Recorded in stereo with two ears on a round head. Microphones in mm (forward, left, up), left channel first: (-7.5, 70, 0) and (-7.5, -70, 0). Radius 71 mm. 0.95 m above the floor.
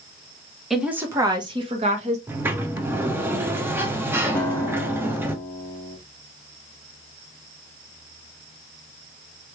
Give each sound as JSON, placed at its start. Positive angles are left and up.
{"t": 0.7, "sound": "a woman speaking", "side_deg": 0, "distance_m": 1.0}
{"t": 2.3, "sound": "a sliding door", "side_deg": -15, "distance_m": 0.7}
{"t": 4.3, "sound": "a guitar", "side_deg": 10, "distance_m": 1.3}